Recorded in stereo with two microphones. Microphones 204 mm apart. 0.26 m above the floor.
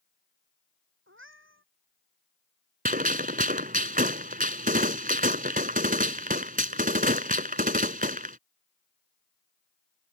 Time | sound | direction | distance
1.1 | a cat meowing | 80° right | ?
2.9 | a gunshot | 45° right (ahead or behind) | ?